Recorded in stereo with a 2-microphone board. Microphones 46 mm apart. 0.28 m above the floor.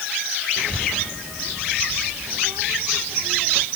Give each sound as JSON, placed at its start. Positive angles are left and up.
{"t": 0.6, "sound": "a child speaking", "side_deg": -90}